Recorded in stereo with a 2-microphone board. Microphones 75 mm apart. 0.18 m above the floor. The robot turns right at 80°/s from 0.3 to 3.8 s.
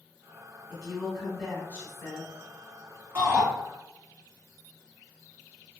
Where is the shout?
25° right (ahead or behind), 1.3 m; by 3.5 s 30° right (ahead or behind), 1.3 m.